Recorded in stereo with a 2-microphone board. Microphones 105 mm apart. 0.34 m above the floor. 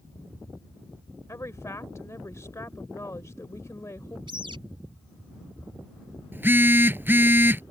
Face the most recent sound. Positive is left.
turn(degrees=-20)  # may be behind; listen again after turning